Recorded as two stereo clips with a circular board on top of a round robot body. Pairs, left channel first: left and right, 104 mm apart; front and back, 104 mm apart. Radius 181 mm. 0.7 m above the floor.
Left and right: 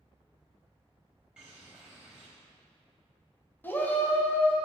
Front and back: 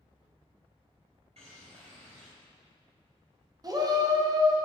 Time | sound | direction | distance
1.4 | a bird | 170° right | 0.6 m
3.6 | a shout | 155° left | 1.3 m